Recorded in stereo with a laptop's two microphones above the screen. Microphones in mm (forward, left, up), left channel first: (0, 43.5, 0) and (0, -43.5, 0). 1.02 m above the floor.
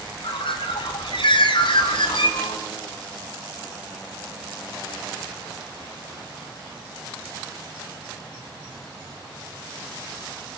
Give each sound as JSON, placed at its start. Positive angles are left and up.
{"t": 0.2, "sound": "a bird", "side_deg": 70, "distance_m": 4.0}